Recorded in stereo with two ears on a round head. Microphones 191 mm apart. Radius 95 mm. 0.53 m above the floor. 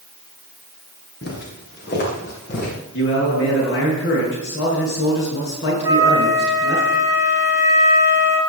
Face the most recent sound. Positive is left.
turn(degrees=-15)  # may be behind; listen again after turning